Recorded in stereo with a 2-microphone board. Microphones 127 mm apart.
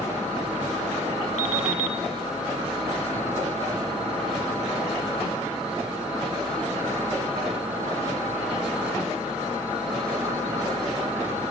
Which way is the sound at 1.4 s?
70° left (ahead or behind).